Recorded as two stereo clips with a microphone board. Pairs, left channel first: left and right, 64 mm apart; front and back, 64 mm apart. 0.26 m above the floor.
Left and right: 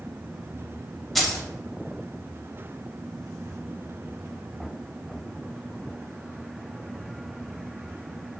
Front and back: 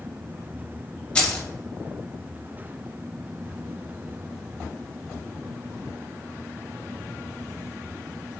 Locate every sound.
1.1 s keys jangling: 5° left, 0.7 m